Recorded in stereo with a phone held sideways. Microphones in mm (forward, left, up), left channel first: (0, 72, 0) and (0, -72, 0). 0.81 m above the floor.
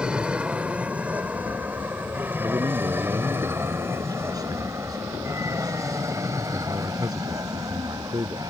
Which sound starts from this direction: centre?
An aircraft, at 0.0 s.